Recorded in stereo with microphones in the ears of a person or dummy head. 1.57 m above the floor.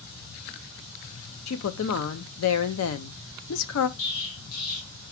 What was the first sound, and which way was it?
A woman speaking, 85° left.